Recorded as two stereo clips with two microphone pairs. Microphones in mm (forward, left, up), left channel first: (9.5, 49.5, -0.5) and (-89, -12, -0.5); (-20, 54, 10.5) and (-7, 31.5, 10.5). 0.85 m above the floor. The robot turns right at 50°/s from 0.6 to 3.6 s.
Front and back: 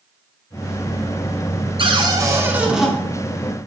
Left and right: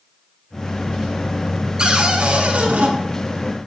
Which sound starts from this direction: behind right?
A cupboard door, at 1.8 s.